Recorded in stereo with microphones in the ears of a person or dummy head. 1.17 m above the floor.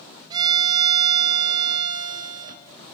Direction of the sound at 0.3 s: 25° right (ahead or behind).